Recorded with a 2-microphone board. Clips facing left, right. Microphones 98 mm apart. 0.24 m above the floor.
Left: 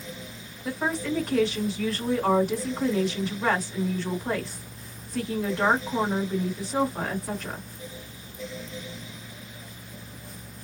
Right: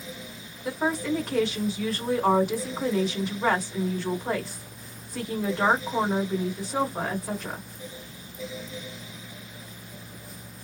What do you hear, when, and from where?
0.7 s a woman speaking: 10° right (ahead or behind), 1.8 m